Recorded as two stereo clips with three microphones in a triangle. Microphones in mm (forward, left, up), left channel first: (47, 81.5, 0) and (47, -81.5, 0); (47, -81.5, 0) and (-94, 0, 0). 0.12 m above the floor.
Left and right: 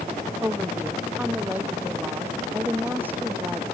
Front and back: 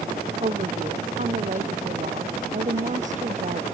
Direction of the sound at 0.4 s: 170° right.